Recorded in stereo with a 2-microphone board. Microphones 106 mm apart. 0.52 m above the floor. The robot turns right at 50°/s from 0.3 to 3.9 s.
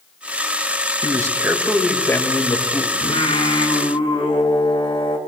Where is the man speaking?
40° right, 2 m; by 2.9 s 55° left, 2 m.